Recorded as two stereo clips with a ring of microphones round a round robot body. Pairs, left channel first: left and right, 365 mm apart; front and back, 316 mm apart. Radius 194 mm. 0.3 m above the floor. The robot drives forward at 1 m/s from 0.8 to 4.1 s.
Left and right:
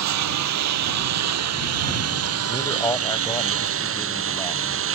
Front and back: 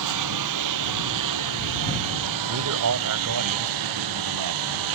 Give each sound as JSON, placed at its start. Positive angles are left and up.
{"t": 0.0, "sound": "a lawn mower", "azimuth_deg": -135}
{"t": 2.5, "sound": "a man speaking", "azimuth_deg": 165}